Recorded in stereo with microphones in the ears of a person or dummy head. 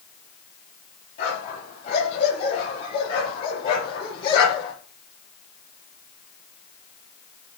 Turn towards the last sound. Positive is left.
turn(degrees=25)  # may be behind; listen again after turning